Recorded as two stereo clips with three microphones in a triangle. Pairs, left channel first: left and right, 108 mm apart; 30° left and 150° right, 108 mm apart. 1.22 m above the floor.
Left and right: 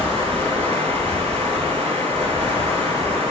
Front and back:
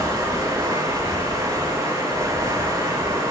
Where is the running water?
90° right, 5 m.